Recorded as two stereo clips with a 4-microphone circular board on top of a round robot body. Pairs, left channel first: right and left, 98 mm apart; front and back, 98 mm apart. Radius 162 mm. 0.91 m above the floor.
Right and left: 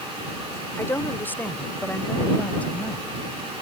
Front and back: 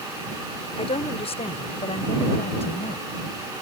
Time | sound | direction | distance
0.8 | a woman speaking | 20° right | ?